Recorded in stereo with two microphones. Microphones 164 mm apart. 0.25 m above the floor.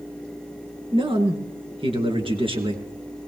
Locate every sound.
0.9 s a man speaking: 35° right (ahead or behind), 3.5 m